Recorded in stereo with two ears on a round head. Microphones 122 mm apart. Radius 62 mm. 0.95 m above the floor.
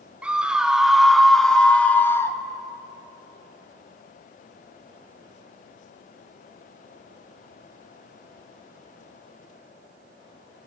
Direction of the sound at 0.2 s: 10° right (ahead or behind).